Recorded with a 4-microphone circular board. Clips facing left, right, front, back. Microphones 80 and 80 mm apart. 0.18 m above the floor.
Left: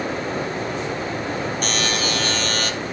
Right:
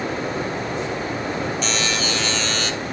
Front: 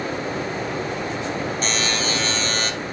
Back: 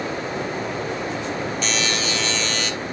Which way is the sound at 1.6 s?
50° left.